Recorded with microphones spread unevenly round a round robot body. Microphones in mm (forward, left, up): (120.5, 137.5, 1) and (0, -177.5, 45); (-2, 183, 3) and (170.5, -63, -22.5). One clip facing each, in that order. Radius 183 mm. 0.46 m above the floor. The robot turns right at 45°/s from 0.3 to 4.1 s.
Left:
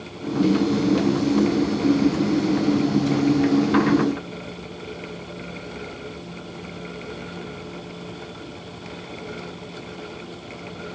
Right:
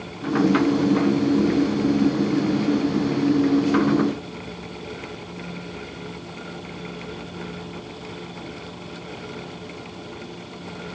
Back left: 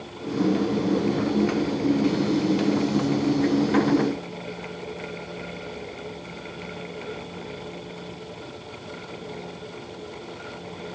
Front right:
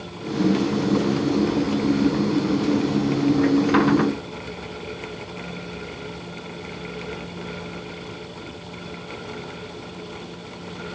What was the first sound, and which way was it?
Only background noise.